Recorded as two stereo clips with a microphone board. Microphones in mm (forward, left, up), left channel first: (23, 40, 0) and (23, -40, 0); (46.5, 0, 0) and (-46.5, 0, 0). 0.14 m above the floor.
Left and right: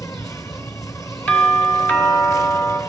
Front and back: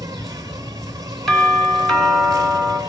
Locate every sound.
0.0 s an insect: 130° left, 1.3 m
1.3 s a doorbell: 75° left, 2 m